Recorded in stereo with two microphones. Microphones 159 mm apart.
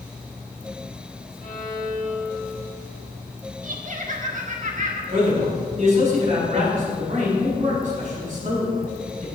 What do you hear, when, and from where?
1.4 s a violin: 55° left (ahead or behind), 1.7 m
3.6 s laughter: 55° right (ahead or behind), 1.6 m
5.1 s a man speaking: 50° right (ahead or behind), 4.5 m